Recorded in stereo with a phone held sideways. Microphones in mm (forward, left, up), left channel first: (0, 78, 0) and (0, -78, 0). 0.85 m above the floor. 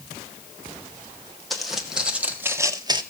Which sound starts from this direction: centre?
Footsteps, at 1.5 s.